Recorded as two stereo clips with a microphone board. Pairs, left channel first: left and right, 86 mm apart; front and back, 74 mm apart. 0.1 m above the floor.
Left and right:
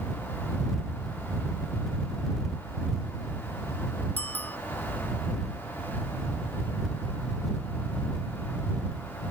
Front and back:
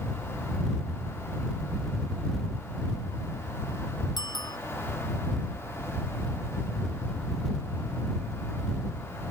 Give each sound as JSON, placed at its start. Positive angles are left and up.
{"t": 4.2, "sound": "a bicycle bell", "azimuth_deg": 20}